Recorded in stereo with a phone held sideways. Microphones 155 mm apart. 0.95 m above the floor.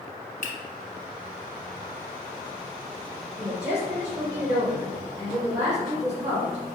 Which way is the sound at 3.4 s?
25° right (ahead or behind).